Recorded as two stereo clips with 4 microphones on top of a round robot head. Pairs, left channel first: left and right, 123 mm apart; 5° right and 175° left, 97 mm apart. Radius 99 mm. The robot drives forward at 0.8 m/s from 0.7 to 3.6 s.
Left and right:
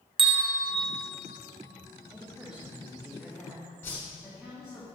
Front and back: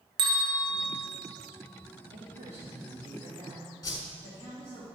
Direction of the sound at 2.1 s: 175° right.